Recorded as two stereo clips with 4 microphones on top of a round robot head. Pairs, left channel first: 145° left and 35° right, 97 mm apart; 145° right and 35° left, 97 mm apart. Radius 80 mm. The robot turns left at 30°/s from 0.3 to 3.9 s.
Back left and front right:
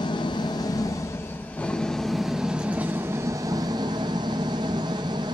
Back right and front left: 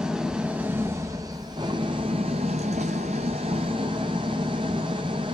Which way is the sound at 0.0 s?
115° left.